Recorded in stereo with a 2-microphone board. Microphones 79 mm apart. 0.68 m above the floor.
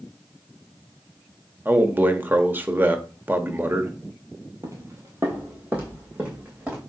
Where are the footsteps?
40° right (ahead or behind), 1.1 m; by 6.8 s 10° right (ahead or behind), 3 m.